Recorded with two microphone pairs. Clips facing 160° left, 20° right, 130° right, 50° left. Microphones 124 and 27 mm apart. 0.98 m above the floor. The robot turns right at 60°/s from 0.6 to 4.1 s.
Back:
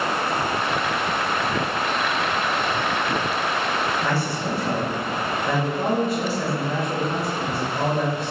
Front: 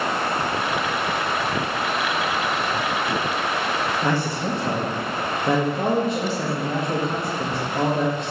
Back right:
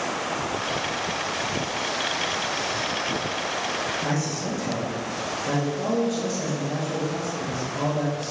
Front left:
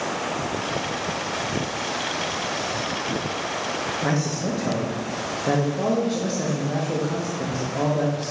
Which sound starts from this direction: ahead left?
A man speaking, at 4.0 s.